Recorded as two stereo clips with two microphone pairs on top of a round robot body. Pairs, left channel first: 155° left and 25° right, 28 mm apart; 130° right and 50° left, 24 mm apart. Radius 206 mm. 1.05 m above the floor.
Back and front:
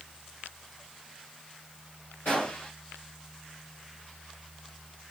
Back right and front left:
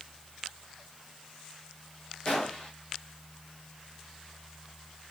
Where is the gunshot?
Straight behind, 0.9 m.